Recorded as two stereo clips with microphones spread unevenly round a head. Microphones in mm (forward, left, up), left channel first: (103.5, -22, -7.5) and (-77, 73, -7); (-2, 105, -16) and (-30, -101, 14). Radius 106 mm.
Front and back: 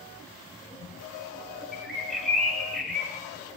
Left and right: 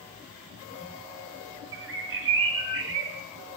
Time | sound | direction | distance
1.7 | a bird | 115° right | 3.5 m